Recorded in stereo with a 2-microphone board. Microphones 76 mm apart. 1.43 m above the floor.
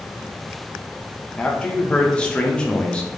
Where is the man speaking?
15° left (ahead or behind), 0.7 m.